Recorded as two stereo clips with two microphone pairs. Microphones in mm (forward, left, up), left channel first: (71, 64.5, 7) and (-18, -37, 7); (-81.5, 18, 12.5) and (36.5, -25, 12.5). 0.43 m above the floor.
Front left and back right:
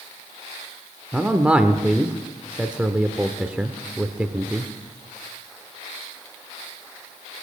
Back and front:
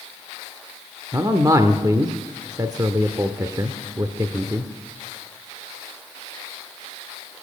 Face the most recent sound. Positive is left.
turn(degrees=-55)